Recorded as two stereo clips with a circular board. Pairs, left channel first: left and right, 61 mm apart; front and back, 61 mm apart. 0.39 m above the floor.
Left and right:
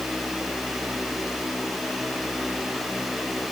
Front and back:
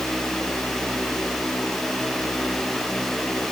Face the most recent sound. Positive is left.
No sound to turn to.